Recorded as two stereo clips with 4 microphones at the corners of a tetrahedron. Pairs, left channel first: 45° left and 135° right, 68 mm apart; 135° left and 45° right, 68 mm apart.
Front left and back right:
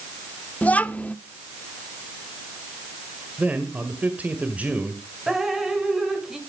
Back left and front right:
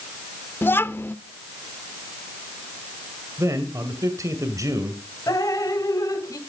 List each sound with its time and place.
0.6 s a child speaking: 105° left, 0.6 m
3.4 s a man speaking: 70° right, 2.0 m
5.3 s dripping: 140° left, 2 m